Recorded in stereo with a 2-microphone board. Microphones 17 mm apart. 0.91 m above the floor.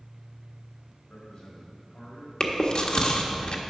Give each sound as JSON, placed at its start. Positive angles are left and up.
{"t": 1.1, "sound": "a man speaking", "side_deg": 50, "distance_m": 4.0}
{"t": 2.4, "sound": "chewing", "side_deg": 50, "distance_m": 1.3}